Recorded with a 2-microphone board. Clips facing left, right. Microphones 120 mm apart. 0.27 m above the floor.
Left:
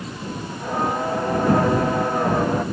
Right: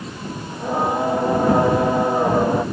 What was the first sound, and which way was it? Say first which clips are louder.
Singing: right 3 dB; 15° right (ahead or behind).